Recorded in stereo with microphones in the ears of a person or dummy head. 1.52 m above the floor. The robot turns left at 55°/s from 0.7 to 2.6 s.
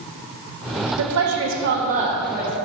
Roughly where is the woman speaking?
Right.